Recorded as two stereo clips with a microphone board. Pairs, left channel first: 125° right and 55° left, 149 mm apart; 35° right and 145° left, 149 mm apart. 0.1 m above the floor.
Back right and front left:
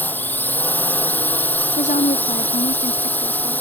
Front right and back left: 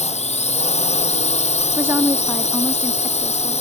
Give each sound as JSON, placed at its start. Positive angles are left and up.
{"t": 0.0, "sound": "a drone", "azimuth_deg": -50}
{"t": 1.8, "sound": "a woman speaking", "azimuth_deg": -140}